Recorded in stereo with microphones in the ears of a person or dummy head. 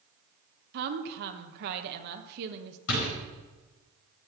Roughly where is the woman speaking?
Right.